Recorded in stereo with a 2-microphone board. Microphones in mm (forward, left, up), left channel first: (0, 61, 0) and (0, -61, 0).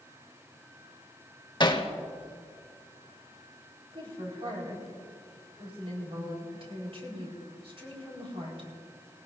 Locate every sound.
1.6 s hammering: 40° left (ahead or behind), 1.1 m
3.9 s a woman speaking: 50° right (ahead or behind), 4 m